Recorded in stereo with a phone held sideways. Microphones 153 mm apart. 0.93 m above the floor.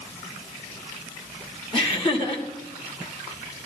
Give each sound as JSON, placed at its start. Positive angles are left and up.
{"t": 1.7, "sound": "laughter", "side_deg": 35, "distance_m": 2.0}